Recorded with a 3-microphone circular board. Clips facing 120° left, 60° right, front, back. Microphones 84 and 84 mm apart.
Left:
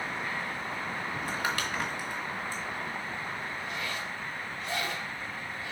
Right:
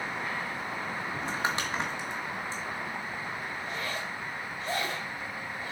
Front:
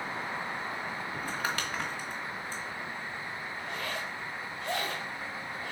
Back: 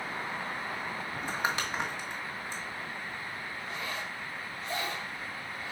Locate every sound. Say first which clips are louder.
1.1 s crumpling: right 1 dB, back 3 dB; 115° right, 1.5 m
3.6 s a zipper: right 1 dB, front 2 dB; 15° right, 4 m